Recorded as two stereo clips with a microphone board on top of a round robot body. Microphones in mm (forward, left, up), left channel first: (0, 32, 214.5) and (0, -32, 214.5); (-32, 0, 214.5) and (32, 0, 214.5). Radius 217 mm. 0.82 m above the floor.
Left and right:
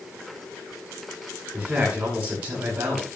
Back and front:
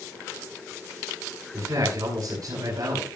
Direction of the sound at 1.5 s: 20° right.